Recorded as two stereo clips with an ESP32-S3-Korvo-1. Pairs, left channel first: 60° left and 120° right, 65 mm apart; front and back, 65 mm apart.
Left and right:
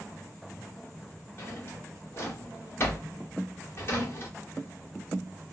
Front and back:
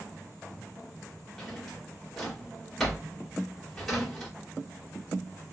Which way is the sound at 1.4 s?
85° left.